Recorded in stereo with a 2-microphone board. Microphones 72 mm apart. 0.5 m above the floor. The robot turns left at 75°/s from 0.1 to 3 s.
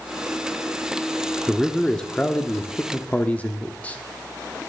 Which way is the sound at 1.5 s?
Centre (ahead or behind).